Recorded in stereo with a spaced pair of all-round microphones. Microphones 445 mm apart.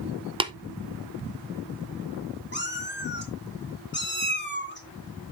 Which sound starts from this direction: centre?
Tapping, at 0.4 s.